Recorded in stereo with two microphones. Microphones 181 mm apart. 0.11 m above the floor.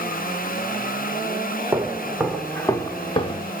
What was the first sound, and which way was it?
Footsteps, 10° right (ahead or behind).